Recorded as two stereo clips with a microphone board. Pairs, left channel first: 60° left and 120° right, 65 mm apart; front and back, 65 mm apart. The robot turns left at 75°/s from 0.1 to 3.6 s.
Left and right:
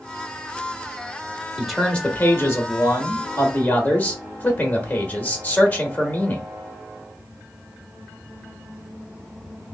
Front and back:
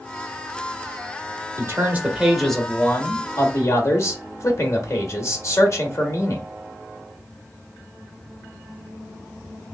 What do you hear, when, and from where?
1.6 s a man speaking: 155° left, 1.3 m; by 6.5 s 5° left, 1.3 m